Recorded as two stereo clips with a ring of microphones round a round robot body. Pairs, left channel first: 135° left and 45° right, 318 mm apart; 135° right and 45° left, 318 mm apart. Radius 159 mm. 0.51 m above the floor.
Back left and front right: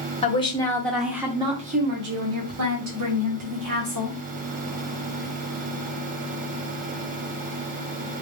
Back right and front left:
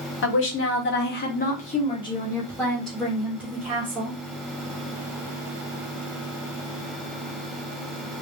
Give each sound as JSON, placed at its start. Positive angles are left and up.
{"t": 0.2, "sound": "a woman speaking", "azimuth_deg": -165, "distance_m": 1.1}